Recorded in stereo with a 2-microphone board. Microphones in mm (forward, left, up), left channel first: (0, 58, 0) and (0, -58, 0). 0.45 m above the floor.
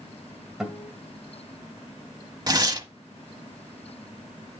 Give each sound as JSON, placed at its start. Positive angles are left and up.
{"t": 0.6, "sound": "a guitar", "side_deg": 0, "distance_m": 1.9}
{"t": 2.5, "sound": "tearing paper", "side_deg": -35, "distance_m": 1.0}